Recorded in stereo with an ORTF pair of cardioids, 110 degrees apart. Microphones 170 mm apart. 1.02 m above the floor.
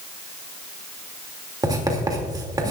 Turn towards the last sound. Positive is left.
turn(degrees=-25)